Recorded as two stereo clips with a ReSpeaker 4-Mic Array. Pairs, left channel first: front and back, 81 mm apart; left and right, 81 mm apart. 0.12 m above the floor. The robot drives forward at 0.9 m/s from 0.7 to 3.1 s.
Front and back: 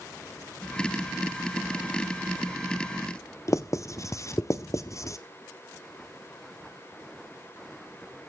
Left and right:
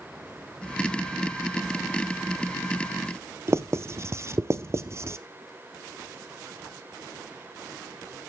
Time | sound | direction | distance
3.5 | writing | 40° right | 0.7 m